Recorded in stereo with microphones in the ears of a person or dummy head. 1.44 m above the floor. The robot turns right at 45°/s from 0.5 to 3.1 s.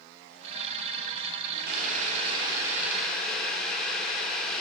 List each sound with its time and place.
1.7 s boiling: 60° right, 1.0 m; by 4.6 s 5° left, 1.0 m